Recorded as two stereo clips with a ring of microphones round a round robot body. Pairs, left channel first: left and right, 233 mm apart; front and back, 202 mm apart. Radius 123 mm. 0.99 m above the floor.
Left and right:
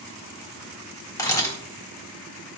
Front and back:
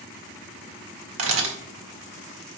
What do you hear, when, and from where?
1.2 s a camera shutter: 165° left, 1.8 m